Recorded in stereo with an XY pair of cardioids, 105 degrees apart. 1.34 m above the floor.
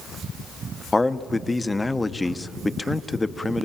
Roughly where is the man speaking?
Ahead.